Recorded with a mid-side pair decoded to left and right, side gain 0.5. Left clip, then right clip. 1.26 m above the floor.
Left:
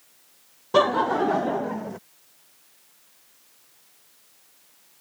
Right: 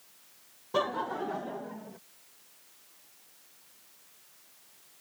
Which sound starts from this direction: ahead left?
Laughter, at 0.7 s.